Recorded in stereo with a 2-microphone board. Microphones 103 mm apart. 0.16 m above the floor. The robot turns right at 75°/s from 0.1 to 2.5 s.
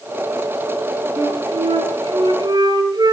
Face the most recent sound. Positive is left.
turn(degrees=-45)